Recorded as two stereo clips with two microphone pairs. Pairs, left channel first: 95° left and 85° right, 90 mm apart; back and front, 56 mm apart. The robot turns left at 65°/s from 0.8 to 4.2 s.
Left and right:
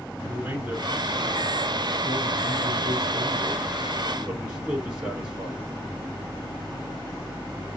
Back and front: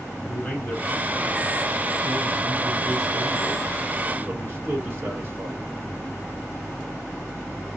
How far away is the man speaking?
About 1.5 m.